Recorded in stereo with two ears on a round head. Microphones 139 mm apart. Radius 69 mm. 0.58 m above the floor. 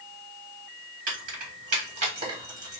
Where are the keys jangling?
60° right (ahead or behind), 1.5 m; by 2.8 s 20° right (ahead or behind), 1.3 m.